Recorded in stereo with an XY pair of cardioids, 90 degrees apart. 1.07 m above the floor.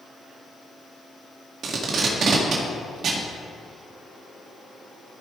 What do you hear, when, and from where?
1.6 s tape being pulled: 65° right, 1.8 m